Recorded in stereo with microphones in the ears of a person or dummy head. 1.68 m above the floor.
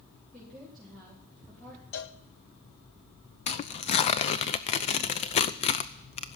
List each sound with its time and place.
0.3 s a woman speaking: centre (ahead or behind), 4 m
1.9 s a cowbell: 60° left (ahead or behind), 0.9 m
3.5 s tearing paper: 35° left (ahead or behind), 0.6 m